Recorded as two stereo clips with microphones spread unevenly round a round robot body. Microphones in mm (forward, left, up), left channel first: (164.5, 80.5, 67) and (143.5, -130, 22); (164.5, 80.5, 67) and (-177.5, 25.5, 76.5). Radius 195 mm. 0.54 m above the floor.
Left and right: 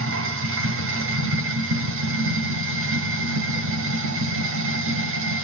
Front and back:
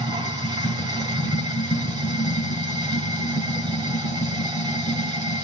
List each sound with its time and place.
0.0 s running water: 90° right, 1.6 m